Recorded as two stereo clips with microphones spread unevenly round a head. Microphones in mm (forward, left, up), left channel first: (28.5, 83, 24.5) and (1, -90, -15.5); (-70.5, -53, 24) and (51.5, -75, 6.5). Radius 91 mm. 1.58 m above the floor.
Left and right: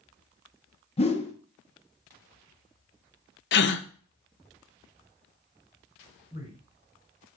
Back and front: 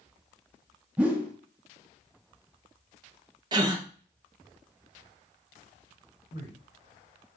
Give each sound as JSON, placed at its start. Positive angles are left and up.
{"t": 1.0, "sound": "a whoosh", "azimuth_deg": 80, "distance_m": 1.2}
{"t": 3.5, "sound": "a gasp", "azimuth_deg": 60, "distance_m": 0.7}
{"t": 6.3, "sound": "a man speaking", "azimuth_deg": 135, "distance_m": 5.0}